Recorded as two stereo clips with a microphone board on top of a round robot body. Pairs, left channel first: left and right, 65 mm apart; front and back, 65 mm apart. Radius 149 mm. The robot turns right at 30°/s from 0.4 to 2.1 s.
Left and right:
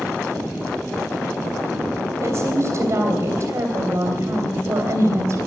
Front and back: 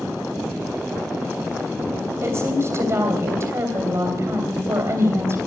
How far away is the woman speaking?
About 3 m.